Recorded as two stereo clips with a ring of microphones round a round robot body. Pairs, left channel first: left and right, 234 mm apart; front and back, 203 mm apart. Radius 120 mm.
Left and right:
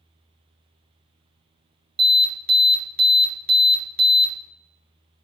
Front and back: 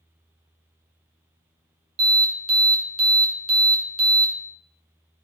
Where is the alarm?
135° right, 1.9 m.